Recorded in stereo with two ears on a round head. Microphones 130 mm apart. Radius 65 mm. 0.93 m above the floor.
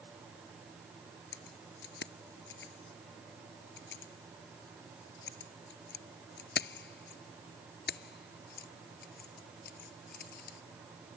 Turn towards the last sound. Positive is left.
turn(degrees=65)  # may be behind; listen again after turning